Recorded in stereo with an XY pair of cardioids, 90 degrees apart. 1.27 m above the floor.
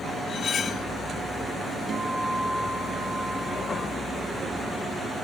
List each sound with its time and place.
0.3 s cutlery clinking: 60° left, 0.9 m
1.9 s a guitar: 45° right, 4.5 m